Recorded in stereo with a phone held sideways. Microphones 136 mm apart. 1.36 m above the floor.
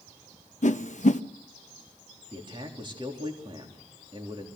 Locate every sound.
0.6 s a whoosh: 65° left (ahead or behind), 0.8 m
2.3 s a man speaking: 35° right (ahead or behind), 3.5 m